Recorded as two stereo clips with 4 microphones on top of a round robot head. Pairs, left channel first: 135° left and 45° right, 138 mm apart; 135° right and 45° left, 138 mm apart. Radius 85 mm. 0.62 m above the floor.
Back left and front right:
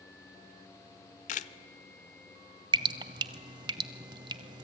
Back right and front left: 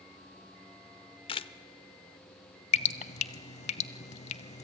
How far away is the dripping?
About 0.6 m.